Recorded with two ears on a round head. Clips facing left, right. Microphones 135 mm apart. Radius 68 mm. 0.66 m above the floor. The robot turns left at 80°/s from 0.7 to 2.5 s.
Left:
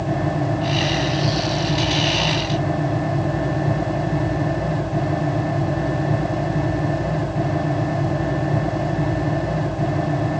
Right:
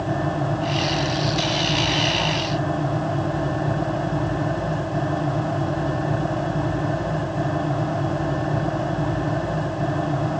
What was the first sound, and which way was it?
Only background noise.